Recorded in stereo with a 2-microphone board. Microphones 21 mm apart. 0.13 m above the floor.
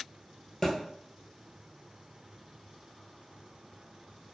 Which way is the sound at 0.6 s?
10° left (ahead or behind).